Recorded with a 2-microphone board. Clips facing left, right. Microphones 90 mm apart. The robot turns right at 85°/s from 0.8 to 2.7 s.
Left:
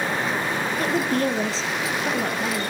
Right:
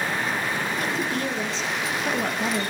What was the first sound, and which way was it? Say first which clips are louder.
A woman speaking: left 4 dB; 65° left.